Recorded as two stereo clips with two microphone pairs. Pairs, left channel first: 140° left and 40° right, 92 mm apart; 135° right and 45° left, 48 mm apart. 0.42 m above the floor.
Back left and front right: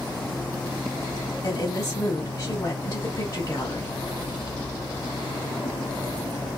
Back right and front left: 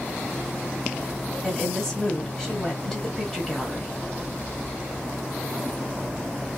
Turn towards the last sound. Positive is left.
turn(degrees=145)